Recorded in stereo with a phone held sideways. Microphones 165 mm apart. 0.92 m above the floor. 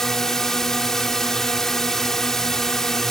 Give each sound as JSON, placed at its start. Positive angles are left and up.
{"t": 0.0, "sound": "a drone", "side_deg": 5}